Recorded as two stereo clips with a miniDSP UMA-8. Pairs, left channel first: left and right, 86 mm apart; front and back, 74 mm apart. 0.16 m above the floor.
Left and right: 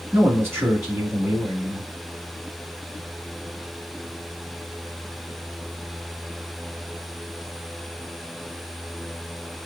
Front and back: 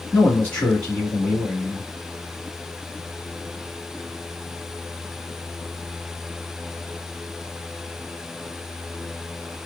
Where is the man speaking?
55° right, 1.7 m.